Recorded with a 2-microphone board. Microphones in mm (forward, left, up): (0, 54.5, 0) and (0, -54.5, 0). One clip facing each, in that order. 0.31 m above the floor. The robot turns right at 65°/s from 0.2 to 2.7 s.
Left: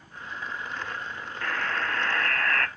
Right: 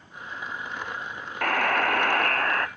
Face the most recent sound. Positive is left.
turn(degrees=-20)